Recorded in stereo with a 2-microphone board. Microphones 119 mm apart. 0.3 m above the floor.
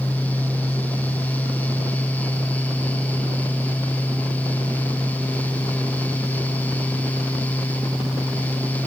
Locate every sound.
Only background noise.